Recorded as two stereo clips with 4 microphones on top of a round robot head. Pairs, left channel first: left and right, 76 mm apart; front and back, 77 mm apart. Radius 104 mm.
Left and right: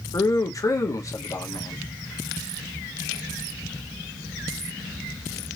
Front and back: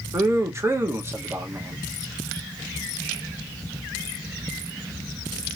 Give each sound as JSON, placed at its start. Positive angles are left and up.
{"t": 0.1, "sound": "a man speaking", "azimuth_deg": 130, "distance_m": 1.2}